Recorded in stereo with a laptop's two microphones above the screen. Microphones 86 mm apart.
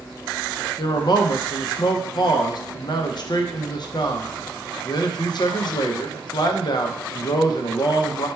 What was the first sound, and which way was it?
A man speaking, 55° left (ahead or behind).